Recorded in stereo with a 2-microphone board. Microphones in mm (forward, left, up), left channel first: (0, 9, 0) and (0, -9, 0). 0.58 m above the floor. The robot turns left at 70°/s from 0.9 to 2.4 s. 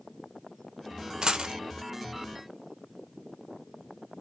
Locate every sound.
1.2 s a dropped coin: 45° right (ahead or behind), 0.9 m; by 1.6 s 65° right (ahead or behind), 0.9 m